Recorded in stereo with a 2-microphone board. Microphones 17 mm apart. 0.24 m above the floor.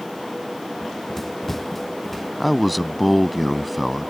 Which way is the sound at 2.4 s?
Centre (ahead or behind).